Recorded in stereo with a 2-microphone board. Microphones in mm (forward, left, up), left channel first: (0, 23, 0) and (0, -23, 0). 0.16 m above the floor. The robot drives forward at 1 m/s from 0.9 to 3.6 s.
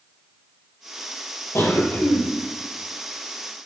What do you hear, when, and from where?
1.6 s a cough: 70° left (ahead or behind), 4 m; by 2.2 s 65° left (ahead or behind), 4.5 m